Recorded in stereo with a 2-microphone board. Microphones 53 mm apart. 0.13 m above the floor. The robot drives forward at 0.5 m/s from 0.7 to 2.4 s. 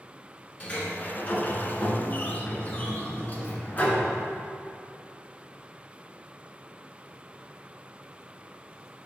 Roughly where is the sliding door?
Left.